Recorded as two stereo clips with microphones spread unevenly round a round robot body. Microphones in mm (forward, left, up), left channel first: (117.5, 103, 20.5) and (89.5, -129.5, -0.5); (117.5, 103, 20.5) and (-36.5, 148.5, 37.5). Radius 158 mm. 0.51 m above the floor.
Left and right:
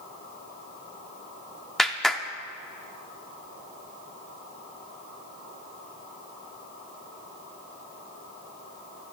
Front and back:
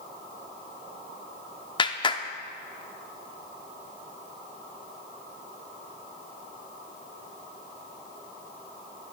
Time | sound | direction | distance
1.8 | a clap | 15° right | 0.8 m